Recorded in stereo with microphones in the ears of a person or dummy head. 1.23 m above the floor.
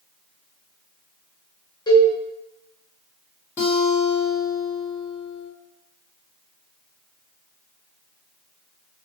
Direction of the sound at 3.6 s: 10° left (ahead or behind).